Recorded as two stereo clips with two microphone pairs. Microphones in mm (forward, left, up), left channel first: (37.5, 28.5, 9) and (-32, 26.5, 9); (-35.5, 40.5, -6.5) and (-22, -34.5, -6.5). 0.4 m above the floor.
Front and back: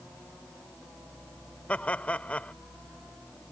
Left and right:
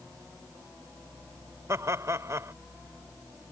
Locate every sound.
1.7 s laughter: 60° right